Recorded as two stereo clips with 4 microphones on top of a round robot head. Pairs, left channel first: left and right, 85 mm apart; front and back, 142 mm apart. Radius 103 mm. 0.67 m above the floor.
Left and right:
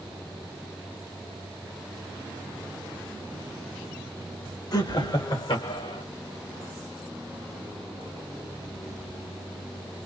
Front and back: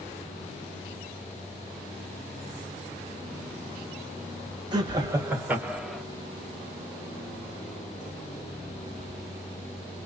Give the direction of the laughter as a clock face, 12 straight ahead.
8 o'clock.